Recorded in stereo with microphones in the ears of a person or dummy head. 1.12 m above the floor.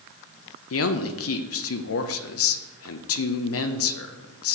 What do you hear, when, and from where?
0.7 s a man speaking: 60° left (ahead or behind), 0.6 m